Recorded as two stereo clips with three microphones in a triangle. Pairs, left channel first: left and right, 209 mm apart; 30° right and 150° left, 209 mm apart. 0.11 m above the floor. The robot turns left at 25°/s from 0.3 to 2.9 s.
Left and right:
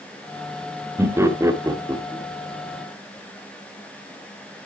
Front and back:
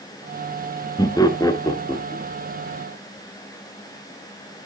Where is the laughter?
35° right, 1.6 m; by 2.2 s 65° right, 1.6 m.